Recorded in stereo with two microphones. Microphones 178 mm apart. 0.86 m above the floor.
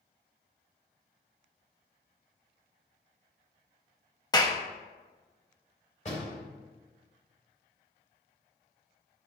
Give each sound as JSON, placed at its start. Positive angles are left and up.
{"t": 4.3, "sound": "a clap", "side_deg": 20, "distance_m": 0.8}
{"t": 6.0, "sound": "a door slam", "side_deg": 40, "distance_m": 4.5}